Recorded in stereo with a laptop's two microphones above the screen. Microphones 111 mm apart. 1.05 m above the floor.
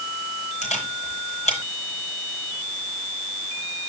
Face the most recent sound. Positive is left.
turn(degrees=85)